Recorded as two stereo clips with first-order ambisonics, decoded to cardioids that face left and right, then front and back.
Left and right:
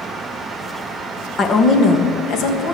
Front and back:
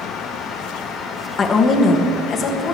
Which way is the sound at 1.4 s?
45° left.